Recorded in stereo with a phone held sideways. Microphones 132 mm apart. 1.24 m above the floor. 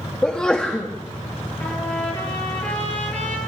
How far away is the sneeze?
About 2.5 m.